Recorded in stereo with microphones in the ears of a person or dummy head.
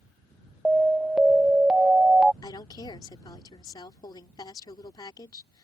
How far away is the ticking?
I don't hear ticking.